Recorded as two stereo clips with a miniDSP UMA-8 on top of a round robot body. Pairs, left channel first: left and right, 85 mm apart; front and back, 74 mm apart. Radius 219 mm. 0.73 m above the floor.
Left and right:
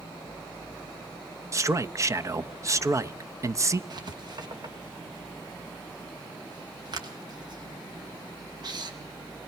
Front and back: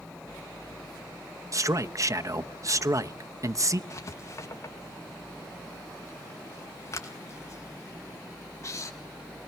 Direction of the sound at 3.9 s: 50° right.